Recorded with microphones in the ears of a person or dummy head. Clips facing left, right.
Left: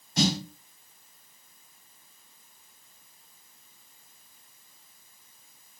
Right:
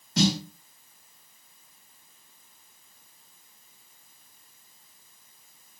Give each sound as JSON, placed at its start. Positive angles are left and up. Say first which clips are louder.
{"t": 0.2, "sound": "a snare drum", "louder": "right 2 dB", "side_deg": -60, "distance_m": 1.2}